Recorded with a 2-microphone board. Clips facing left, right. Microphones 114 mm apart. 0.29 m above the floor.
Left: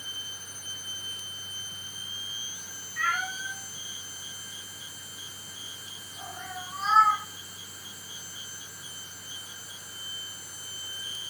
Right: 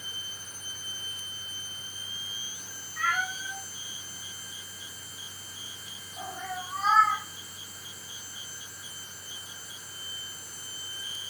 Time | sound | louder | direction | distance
3.0 | a cat meowing | right 1 dB | 20° right (ahead or behind) | 6.5 m